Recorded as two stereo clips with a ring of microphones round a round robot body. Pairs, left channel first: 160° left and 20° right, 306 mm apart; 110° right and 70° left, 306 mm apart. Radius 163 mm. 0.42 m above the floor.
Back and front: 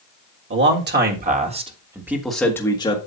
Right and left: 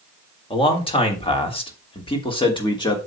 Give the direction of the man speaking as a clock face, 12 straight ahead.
2 o'clock.